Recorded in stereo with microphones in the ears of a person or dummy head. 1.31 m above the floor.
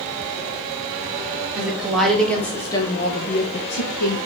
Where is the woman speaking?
15° right (ahead or behind), 2.5 m; by 4.2 s 85° left, 1.4 m.